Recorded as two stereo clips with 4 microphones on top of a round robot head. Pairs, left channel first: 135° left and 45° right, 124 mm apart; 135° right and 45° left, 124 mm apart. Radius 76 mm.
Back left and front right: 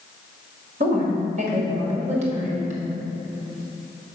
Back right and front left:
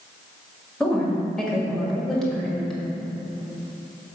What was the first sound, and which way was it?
A woman speaking, 50° right.